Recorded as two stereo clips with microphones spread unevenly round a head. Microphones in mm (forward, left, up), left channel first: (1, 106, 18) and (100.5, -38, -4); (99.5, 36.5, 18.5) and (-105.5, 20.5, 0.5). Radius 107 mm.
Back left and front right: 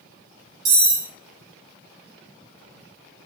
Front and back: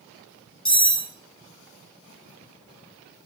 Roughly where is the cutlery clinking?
Right.